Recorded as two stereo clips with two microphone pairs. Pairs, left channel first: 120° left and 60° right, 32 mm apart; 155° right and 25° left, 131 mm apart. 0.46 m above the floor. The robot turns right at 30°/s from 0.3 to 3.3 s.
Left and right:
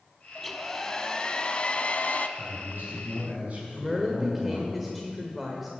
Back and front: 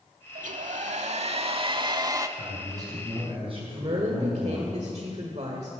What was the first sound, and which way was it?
A hair dryer, 30° left.